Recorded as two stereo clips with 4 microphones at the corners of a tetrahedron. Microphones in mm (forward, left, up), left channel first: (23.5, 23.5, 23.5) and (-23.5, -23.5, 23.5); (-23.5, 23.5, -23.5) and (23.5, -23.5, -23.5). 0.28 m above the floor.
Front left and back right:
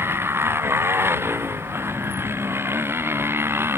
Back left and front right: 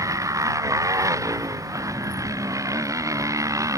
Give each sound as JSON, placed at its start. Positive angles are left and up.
{"t": 0.0, "sound": "a motorcycle", "azimuth_deg": -80}